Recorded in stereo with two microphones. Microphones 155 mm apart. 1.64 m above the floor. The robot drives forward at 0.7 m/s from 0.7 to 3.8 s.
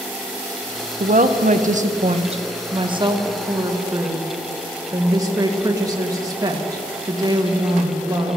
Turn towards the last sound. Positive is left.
turn(degrees=-25)  # may be behind; listen again after turning